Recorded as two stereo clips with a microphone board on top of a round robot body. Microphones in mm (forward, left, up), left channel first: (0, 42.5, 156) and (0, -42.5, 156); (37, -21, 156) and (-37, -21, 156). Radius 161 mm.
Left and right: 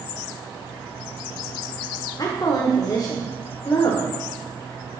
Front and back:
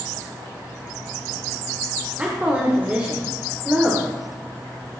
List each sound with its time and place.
2.2 s a woman speaking: 115° left, 2.0 m